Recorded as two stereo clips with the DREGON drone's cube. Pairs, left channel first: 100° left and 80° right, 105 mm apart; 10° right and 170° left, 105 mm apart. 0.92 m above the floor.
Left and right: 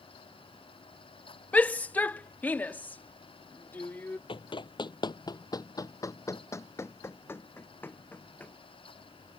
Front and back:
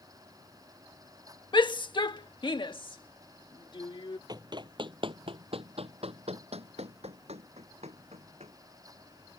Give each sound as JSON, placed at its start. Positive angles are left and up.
{"t": 1.5, "sound": "a shout", "azimuth_deg": 25}
{"t": 4.3, "sound": "running footsteps", "azimuth_deg": 125}